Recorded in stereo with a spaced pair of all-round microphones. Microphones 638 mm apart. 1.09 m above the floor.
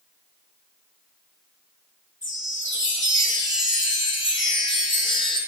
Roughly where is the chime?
Centre.